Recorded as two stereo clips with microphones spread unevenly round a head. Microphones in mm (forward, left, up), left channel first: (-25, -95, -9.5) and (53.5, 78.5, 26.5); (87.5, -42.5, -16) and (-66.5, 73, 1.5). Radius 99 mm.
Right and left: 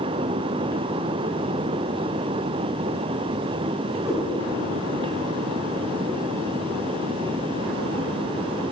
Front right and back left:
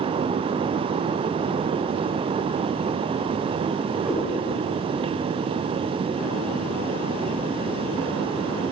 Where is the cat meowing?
75° left, 1.4 m.